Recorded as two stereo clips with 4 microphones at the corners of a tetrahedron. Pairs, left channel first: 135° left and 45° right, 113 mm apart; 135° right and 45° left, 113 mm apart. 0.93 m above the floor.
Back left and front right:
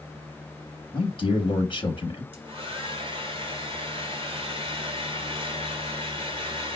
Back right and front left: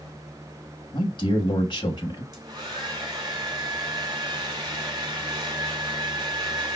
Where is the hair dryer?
5° right, 1.4 m.